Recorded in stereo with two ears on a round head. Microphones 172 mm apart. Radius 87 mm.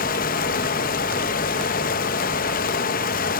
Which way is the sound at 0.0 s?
40° left (ahead or behind).